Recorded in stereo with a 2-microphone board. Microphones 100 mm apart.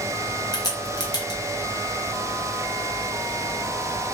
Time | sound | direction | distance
0.5 | a crack | 40° left (ahead or behind) | 0.8 m